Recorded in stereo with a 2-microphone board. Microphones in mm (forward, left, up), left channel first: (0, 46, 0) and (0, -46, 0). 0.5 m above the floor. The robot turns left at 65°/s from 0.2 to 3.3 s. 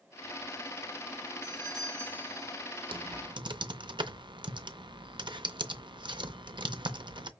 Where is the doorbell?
155° right, 4 m; by 2.7 s 125° left, 4 m.